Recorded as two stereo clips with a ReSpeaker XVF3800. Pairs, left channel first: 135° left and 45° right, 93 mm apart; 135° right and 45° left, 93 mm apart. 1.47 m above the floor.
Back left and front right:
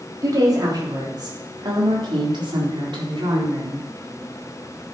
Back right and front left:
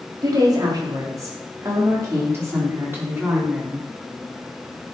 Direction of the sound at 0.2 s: 5° left.